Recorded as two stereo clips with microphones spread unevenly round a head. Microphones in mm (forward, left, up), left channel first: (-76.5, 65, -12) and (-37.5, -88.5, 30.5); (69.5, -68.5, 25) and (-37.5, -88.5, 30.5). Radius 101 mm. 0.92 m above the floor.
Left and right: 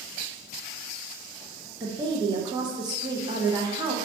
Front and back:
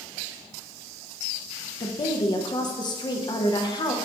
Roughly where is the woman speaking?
Ahead.